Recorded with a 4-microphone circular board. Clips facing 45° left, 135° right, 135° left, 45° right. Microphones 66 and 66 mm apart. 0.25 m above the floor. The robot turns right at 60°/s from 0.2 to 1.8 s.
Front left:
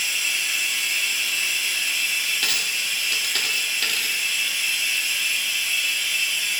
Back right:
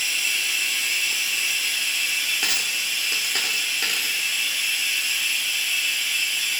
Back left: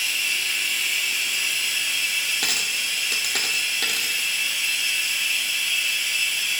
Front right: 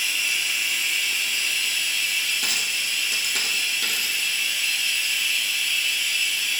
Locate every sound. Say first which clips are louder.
0.0 s running water: even, even; 5° right, 0.9 m; by 6.6 s 90° left, 0.9 m
2.4 s a dropped coin: even, even; 155° left, 0.6 m